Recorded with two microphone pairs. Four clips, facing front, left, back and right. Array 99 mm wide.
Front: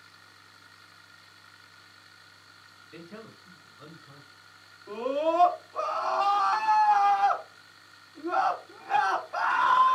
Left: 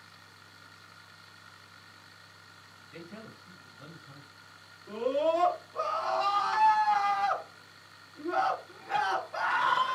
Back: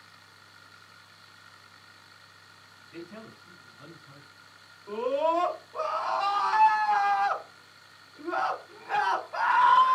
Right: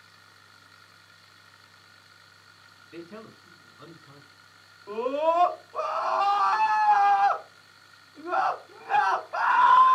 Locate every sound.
2.9 s a man speaking: 90° right, 3 m
4.9 s a scream: 95° right, 2 m